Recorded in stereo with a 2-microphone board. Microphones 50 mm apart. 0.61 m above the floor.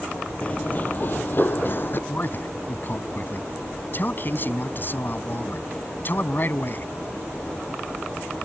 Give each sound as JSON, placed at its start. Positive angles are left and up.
{"t": 0.4, "sound": "running footsteps", "side_deg": 30}
{"t": 2.1, "sound": "a man speaking", "side_deg": 45}